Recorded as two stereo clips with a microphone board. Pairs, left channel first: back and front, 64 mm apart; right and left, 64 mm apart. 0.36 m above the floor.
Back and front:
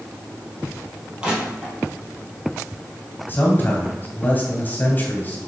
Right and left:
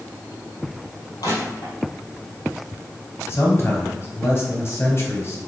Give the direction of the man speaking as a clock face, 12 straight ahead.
4 o'clock.